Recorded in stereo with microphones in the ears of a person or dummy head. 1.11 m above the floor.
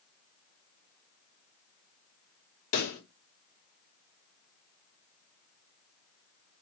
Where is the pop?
70° left (ahead or behind), 1.0 m.